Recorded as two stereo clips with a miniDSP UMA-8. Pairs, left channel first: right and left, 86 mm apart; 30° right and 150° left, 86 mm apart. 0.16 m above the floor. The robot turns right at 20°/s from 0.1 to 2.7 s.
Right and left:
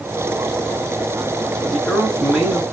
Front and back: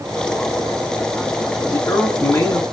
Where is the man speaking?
5° right, 1.6 m; by 2.6 s 15° left, 1.6 m.